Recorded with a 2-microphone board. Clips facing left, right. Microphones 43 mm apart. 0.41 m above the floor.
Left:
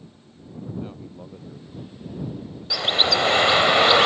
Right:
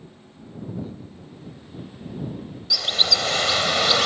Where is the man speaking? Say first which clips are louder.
Even; 40° left (ahead or behind).